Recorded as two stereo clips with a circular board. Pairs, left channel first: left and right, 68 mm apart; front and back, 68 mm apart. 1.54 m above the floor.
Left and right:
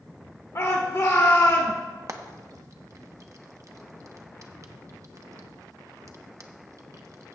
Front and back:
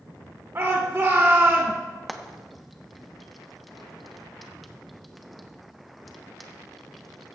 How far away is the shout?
About 1.3 m.